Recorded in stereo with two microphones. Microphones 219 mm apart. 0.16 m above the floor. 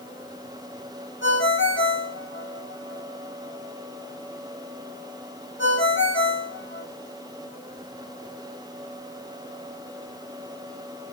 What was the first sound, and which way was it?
A ringtone, 60° left (ahead or behind).